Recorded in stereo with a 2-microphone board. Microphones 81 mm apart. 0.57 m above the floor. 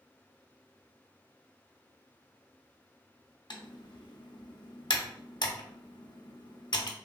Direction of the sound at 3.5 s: 65° left (ahead or behind).